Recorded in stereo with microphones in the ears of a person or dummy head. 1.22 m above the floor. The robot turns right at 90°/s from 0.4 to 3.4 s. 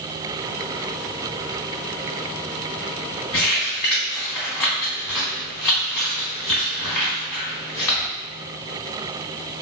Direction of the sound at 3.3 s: 5° left (ahead or behind).